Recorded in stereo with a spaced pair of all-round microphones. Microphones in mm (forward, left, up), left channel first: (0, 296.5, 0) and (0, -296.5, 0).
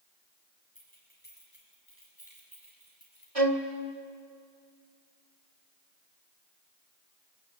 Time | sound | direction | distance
0.8 | keys jangling | 15° left (ahead or behind) | 7.5 m
3.4 | a violin | 70° right (ahead or behind) | 1.9 m